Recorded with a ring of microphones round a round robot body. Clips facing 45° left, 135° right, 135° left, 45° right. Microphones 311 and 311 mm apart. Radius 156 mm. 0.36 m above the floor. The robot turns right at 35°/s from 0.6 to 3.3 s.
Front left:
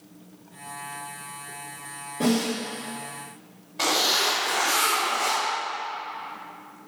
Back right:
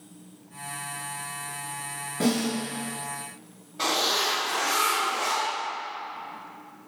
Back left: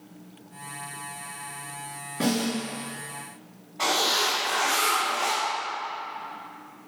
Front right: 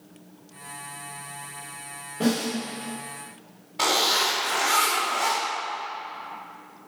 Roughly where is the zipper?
Ahead right.